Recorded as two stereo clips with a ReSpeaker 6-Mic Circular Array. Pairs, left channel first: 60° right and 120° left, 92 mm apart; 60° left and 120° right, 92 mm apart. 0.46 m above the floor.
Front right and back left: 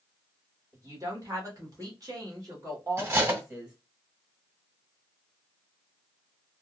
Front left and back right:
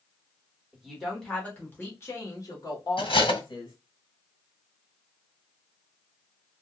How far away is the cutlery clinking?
About 1.6 m.